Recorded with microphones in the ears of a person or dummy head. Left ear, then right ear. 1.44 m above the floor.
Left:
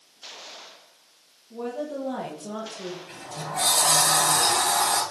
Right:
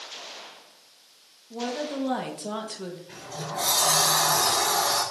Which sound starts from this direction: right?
A woman speaking, at 1.5 s.